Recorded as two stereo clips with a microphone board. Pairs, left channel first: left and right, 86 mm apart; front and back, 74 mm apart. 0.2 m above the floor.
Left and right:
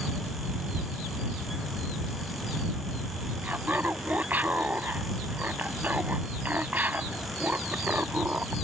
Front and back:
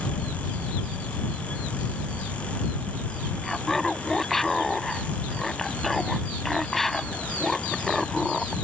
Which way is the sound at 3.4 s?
80° right.